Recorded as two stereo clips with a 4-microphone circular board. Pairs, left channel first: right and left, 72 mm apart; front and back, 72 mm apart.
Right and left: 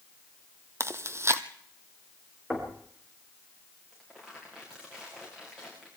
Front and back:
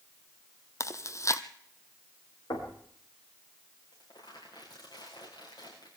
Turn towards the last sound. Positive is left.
turn(degrees=10)